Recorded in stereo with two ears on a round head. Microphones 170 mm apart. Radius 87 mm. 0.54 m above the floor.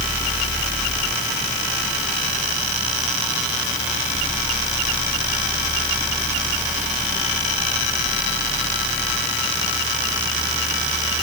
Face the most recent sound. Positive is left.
No sound to turn to.